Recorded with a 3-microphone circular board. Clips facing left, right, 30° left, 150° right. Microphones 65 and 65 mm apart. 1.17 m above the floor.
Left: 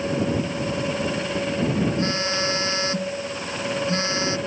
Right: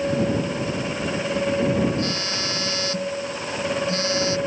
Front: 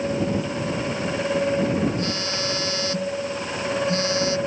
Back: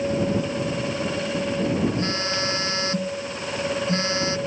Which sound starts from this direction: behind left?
A phone buzzing, at 2.0 s.